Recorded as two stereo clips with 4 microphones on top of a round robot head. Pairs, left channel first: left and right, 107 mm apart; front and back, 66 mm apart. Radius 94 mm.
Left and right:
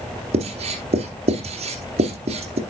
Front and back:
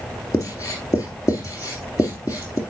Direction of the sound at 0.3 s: 55° right.